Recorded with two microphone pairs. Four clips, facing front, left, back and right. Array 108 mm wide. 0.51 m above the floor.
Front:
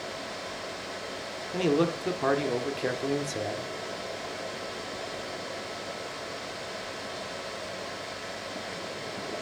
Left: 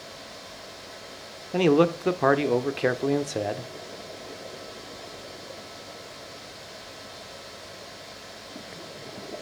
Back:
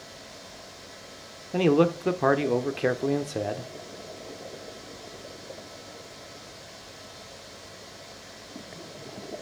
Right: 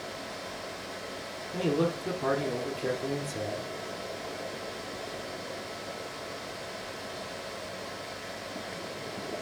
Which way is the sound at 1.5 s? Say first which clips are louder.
Left 8 dB, back 4 dB; 110° left.